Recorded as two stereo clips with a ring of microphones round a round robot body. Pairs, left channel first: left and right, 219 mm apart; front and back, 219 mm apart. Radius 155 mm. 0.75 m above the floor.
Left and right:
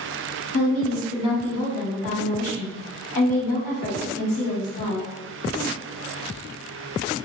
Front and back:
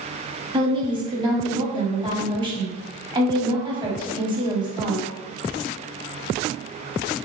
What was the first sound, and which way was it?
A woman speaking, 110° left.